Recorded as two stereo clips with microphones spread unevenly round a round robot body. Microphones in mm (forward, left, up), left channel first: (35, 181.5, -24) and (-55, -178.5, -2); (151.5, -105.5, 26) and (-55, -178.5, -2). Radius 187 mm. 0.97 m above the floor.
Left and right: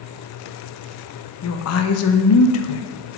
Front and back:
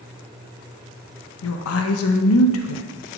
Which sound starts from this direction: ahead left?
A woman speaking, at 1.4 s.